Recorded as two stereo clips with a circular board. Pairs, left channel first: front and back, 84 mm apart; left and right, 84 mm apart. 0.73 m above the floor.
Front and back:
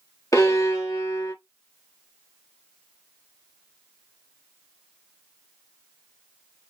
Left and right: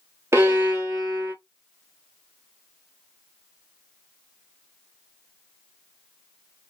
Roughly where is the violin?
Ahead right.